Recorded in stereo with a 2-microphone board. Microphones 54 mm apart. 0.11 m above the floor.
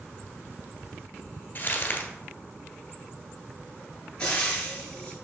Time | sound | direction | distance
1.6 | crumpling | 35° left (ahead or behind) | 1.2 m
4.2 | frying | 15° left (ahead or behind) | 2.5 m